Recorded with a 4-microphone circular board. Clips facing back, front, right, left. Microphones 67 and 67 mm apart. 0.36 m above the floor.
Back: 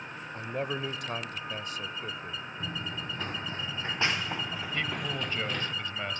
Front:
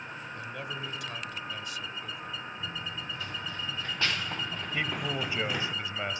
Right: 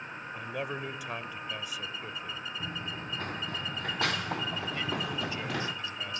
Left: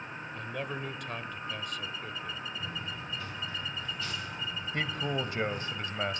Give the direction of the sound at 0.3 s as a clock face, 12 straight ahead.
6 o'clock.